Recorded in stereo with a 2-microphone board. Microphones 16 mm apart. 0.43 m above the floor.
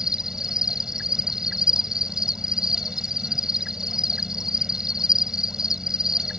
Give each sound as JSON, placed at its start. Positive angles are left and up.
{"t": 0.0, "sound": "an insect", "side_deg": -35}